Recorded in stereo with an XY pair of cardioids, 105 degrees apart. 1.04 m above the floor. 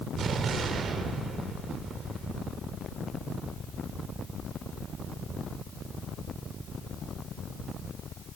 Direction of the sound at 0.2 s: 55° right.